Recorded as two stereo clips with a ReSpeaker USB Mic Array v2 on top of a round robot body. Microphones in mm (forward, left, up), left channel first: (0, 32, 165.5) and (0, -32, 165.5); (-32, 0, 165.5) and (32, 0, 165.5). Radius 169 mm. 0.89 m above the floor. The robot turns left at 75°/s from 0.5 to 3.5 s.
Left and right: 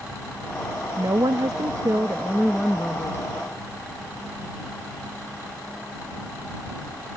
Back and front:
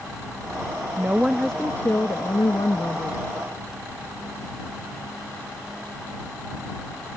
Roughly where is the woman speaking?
Ahead right.